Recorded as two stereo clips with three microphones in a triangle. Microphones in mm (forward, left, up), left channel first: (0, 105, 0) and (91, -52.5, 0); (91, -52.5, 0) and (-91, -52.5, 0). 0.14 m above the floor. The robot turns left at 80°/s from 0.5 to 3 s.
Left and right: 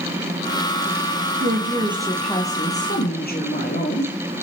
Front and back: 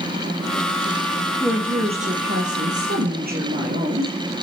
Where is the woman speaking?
85° right, 4 m; by 4.1 s 150° left, 4 m.